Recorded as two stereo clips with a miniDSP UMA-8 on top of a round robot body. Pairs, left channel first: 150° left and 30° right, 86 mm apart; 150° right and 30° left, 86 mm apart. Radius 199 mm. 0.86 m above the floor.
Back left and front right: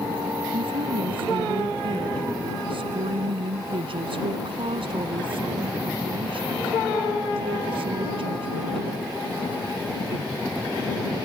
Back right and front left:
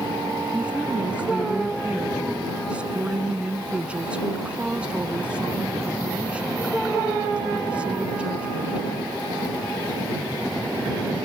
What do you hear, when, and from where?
0.5 s a woman speaking: 45° right